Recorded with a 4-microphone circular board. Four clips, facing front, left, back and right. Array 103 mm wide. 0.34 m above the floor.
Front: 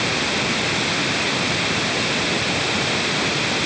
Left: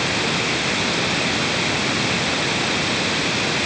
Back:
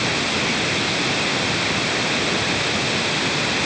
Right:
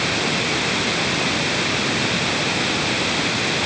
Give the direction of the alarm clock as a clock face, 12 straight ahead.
I don't hear an alarm clock.